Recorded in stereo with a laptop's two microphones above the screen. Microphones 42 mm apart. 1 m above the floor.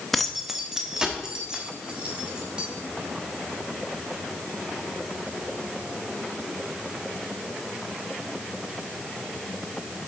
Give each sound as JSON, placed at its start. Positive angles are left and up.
{"t": 0.1, "sound": "keys jangling", "side_deg": 0, "distance_m": 0.5}